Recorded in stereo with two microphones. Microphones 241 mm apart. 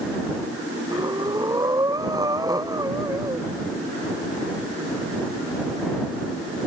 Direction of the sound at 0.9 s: 15° right (ahead or behind).